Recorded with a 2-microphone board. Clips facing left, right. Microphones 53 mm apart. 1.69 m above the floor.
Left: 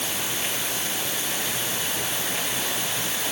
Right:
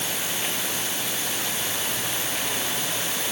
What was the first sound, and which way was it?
Only background noise.